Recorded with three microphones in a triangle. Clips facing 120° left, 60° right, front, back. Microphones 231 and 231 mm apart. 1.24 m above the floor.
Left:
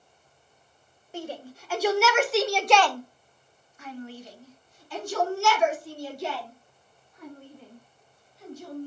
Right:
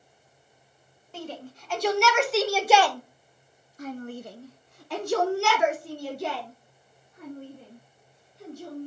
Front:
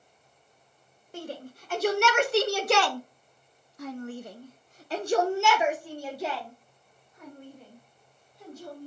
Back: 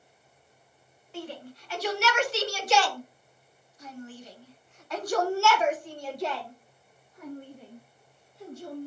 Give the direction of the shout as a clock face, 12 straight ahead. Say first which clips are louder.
Left 2 dB, front 1 dB; 11 o'clock.